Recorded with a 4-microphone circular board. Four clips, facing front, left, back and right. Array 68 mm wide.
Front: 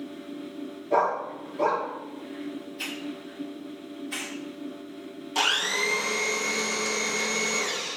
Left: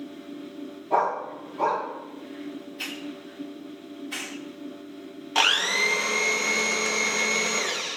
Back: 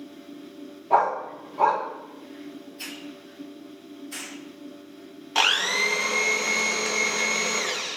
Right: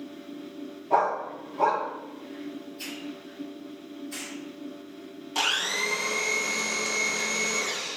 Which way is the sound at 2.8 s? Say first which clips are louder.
Left 2 dB, front 4 dB; 75° left.